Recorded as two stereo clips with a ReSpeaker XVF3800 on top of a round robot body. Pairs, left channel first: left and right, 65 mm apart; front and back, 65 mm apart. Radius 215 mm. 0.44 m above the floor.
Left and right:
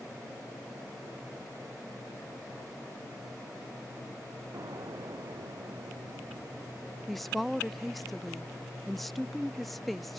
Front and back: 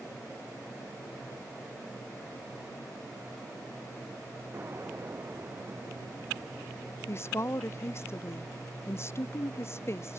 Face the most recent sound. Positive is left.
turn(degrees=5)